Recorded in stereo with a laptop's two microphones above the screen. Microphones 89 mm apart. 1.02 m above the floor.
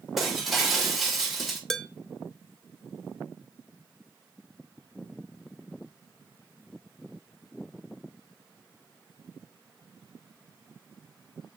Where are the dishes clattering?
5° left (ahead or behind), 0.5 m.